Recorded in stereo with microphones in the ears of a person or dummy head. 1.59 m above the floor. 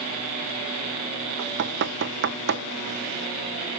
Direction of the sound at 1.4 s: 55° right (ahead or behind).